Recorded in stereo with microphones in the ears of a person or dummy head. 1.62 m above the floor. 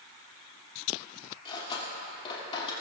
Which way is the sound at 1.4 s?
30° left (ahead or behind).